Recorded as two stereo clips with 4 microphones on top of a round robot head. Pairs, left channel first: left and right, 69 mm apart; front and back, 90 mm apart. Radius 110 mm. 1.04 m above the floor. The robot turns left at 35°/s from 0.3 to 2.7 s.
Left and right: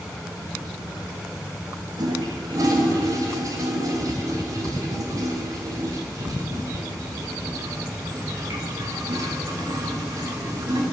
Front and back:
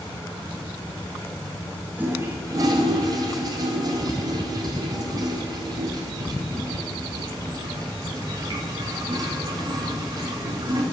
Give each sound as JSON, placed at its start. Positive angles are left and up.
{"t": 2.0, "sound": "a toilet flushing", "azimuth_deg": -105, "distance_m": 1.6}